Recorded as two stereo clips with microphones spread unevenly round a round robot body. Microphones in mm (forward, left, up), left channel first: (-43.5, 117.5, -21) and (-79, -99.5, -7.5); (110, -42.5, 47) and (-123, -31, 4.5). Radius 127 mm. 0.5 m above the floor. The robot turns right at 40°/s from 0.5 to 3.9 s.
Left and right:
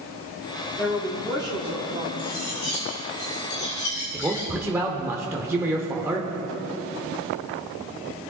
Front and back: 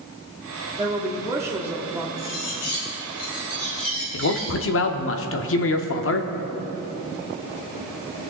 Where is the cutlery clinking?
5° right, 3.5 m; by 4.5 s 65° left, 3.5 m.